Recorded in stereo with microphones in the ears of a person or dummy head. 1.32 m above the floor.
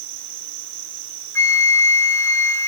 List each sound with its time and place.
0.0 s an insect: 75° right (ahead or behind), 4.5 m
1.4 s a flute: 15° left (ahead or behind), 0.8 m